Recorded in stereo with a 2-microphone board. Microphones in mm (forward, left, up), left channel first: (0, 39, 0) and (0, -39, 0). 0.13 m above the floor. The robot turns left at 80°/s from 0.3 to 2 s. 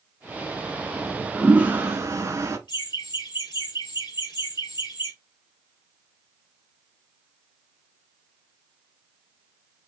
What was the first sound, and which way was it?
A toilet flushing, 20° left.